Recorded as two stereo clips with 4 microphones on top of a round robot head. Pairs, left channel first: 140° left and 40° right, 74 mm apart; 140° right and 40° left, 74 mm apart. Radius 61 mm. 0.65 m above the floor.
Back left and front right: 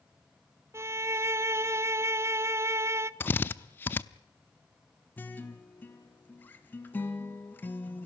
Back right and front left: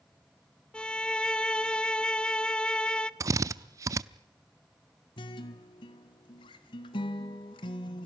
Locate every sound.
0.7 s a violin: 70° right, 0.8 m
3.2 s a drill: 80° left, 0.7 m
5.2 s a guitar: 155° right, 1.7 m